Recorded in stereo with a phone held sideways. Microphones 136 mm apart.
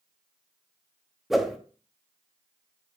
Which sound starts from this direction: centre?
A whoosh, at 1.3 s.